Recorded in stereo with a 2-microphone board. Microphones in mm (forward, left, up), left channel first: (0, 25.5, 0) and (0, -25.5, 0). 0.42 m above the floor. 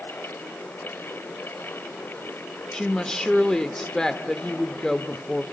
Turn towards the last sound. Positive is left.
turn(degrees=15)  # may be behind; listen again after turning